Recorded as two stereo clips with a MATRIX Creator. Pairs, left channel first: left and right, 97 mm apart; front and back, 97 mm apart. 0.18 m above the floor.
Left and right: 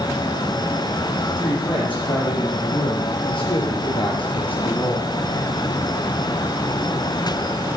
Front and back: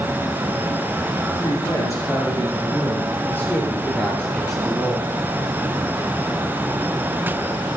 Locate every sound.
1.3 s a woman speaking: 55° left, 7 m; by 5.1 s 100° left, 3.5 m